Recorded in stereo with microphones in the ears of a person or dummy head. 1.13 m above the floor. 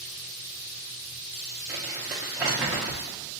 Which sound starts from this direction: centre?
Crumpling, at 1.7 s.